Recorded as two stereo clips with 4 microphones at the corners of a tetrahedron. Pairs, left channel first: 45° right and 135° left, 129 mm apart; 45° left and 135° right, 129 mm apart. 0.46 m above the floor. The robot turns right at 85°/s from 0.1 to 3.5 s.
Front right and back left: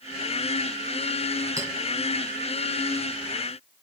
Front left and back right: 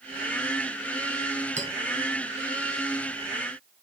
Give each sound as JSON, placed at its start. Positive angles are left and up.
{"t": 1.6, "sound": "a clink", "azimuth_deg": -160, "distance_m": 3.0}